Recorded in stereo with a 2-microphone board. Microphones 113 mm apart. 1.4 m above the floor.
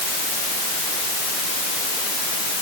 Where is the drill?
I don't hear a drill.